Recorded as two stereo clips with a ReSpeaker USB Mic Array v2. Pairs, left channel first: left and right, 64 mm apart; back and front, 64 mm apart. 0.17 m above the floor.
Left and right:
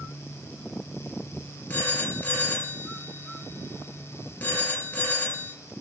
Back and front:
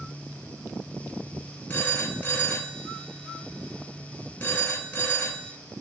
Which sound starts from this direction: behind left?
A phone ringing, at 1.7 s.